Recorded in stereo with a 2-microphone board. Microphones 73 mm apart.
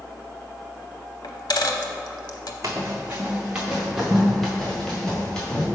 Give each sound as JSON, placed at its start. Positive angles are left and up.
{"t": 1.2, "sound": "a dropped coin", "side_deg": 75, "distance_m": 0.7}
{"t": 2.6, "sound": "running footsteps", "side_deg": -40, "distance_m": 1.2}